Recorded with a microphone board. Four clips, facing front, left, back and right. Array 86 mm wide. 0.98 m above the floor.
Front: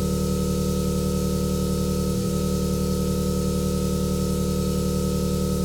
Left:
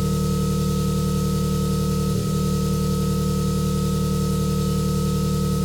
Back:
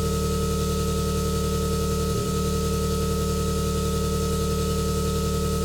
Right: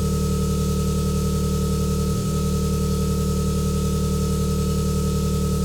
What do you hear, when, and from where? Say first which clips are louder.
0.0 s an engine running: left 1 dB, front 1 dB; 160° left, 3.5 m